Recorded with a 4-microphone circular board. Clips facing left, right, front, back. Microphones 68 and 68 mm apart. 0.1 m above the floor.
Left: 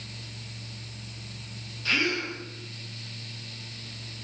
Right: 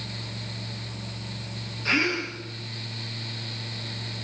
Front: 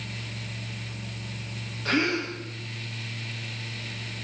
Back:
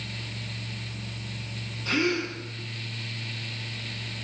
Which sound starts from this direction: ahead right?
A gasp, at 1.9 s.